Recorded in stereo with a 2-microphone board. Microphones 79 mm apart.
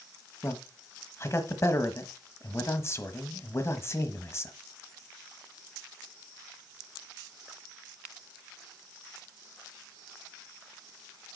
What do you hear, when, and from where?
0.4 s a man speaking: 35° left (ahead or behind), 1.2 m